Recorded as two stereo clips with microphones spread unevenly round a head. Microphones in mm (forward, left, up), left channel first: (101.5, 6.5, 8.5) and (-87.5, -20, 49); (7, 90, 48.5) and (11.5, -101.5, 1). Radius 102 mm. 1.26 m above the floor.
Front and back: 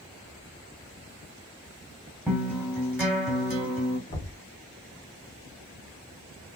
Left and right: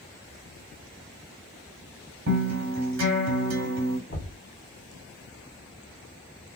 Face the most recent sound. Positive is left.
turn(degrees=55)